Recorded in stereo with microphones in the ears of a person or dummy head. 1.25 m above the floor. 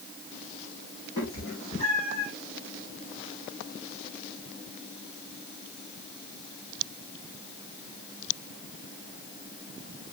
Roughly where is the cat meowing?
Left.